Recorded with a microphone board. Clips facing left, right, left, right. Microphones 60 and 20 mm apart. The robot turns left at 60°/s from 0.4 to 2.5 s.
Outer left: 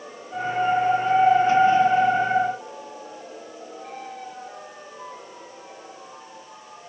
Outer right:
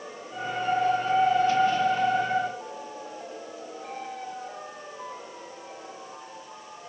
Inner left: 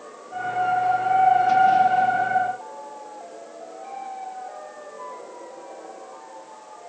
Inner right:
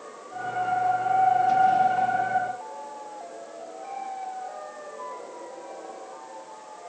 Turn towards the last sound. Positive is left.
No sound to turn to.